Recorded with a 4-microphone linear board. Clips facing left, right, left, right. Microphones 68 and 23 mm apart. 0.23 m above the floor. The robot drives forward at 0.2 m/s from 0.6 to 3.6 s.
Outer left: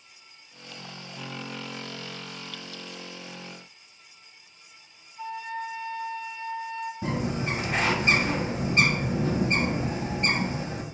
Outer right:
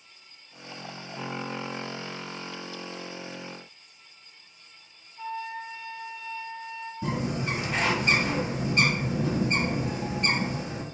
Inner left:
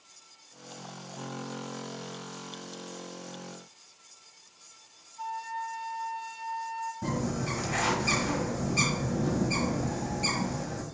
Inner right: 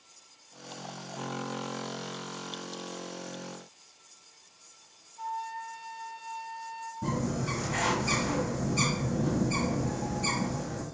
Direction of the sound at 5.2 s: 15° right (ahead or behind).